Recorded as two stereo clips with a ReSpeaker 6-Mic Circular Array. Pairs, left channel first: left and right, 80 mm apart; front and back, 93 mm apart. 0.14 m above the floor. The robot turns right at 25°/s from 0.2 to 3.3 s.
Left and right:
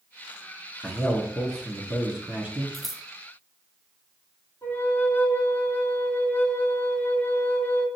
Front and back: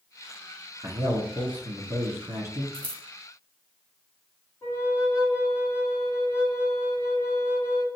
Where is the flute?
40° left, 1.0 m.